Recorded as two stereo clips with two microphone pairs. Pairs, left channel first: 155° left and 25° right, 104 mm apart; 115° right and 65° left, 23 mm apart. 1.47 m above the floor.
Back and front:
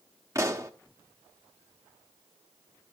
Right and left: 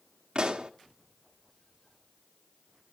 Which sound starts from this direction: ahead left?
A pop, at 0.3 s.